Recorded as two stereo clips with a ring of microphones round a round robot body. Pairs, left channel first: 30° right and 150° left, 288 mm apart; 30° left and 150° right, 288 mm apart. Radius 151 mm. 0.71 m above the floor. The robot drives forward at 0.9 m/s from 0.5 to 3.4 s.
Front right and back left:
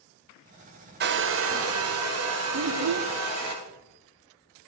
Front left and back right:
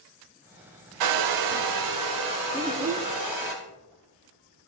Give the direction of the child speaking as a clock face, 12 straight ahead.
8 o'clock.